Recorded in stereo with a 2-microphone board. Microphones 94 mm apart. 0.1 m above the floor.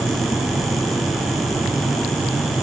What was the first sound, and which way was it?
Only background noise.